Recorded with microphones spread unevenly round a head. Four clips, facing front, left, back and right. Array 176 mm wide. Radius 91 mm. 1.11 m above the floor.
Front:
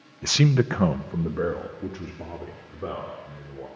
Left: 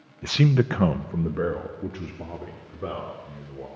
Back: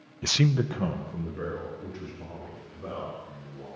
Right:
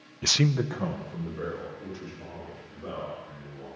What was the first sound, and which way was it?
A man speaking, 70° right.